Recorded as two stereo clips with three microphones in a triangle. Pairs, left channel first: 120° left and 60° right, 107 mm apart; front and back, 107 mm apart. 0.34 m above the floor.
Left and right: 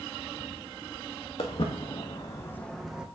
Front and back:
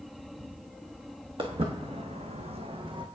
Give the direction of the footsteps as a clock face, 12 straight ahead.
7 o'clock.